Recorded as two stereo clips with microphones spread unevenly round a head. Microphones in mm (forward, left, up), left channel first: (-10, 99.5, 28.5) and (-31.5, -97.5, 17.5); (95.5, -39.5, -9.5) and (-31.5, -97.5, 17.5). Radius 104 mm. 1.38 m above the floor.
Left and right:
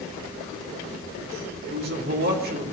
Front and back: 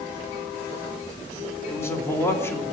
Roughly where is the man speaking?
Ahead right.